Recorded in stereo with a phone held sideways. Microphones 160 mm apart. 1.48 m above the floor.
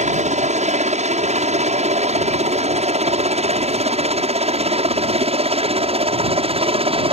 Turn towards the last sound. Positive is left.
turn(degrees=-35)  # may be behind; listen again after turning